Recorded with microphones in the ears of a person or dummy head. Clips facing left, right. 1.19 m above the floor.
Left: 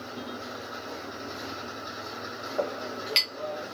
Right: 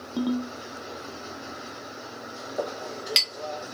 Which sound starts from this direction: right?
A ringtone, at 0.2 s.